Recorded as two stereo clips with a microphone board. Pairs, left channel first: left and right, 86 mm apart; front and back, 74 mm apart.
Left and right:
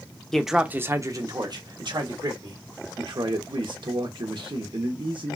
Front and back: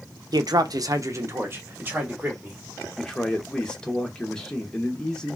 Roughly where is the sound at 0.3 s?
Behind.